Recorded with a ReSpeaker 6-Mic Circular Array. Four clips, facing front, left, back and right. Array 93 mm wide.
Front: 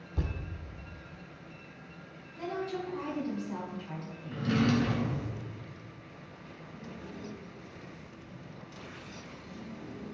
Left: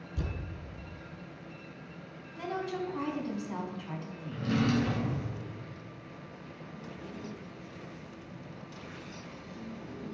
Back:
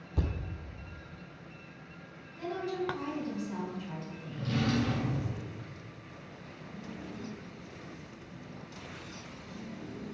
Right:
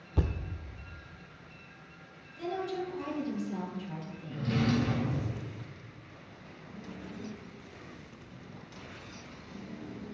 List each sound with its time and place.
0.2 s a thud: 100° right, 1.1 m
2.4 s a woman speaking: 80° left, 2.0 m
4.3 s a drawer: 10° left, 2 m